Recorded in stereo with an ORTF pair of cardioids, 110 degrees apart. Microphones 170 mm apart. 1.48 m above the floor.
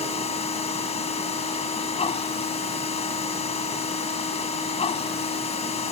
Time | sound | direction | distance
0.0 | a machine running | 35° left | ?